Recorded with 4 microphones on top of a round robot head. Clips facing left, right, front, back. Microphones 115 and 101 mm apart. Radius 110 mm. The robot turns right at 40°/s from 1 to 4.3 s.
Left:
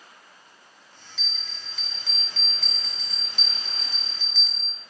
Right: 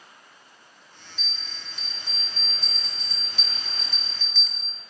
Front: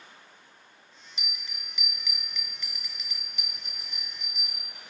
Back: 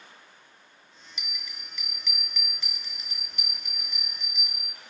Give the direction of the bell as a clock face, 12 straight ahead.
10 o'clock.